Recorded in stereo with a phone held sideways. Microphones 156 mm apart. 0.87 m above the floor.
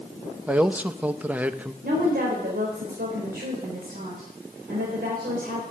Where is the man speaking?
10° right (ahead or behind), 0.7 m.